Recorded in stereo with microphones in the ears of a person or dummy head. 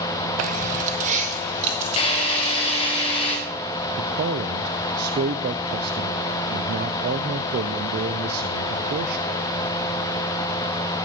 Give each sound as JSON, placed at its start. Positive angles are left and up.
{"t": 0.4, "sound": "keys jangling", "side_deg": -45, "distance_m": 0.6}
{"t": 2.0, "sound": "a drill", "side_deg": 30, "distance_m": 4.0}
{"t": 4.0, "sound": "a man speaking", "side_deg": -55, "distance_m": 0.6}